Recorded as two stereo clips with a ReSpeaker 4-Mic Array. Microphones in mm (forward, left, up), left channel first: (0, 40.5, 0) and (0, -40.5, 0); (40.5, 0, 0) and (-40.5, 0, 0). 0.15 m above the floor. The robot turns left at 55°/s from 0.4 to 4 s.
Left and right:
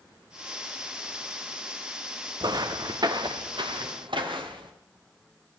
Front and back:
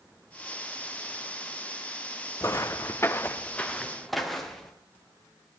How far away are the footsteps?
About 0.8 m.